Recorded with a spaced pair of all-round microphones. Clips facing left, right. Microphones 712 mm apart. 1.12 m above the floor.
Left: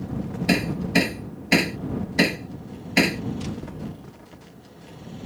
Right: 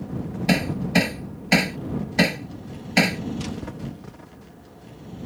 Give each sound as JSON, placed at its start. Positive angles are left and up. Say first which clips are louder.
{"t": 0.5, "sound": "hammering", "louder": "even", "side_deg": -20}